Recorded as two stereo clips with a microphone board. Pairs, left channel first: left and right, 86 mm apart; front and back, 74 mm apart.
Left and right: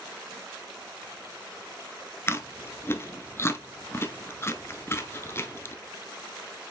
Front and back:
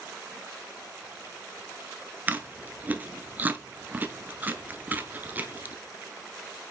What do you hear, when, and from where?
2.3 s chewing: 130° left, 0.9 m